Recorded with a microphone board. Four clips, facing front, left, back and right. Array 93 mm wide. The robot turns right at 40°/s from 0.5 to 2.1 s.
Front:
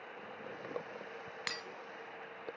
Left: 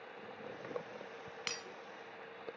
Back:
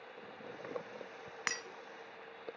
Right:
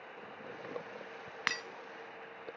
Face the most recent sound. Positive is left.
turn(degrees=-85)